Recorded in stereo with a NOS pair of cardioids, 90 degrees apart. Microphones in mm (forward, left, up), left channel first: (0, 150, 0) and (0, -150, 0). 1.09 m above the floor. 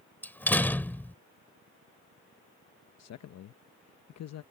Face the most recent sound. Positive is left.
turn(degrees=60)